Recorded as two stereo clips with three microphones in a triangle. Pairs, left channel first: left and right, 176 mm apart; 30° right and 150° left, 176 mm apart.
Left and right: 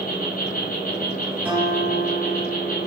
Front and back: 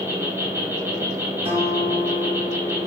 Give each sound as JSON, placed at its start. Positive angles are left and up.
{"t": 0.0, "sound": "an insect", "azimuth_deg": 80, "distance_m": 0.9}
{"t": 1.4, "sound": "a guitar", "azimuth_deg": -165, "distance_m": 1.2}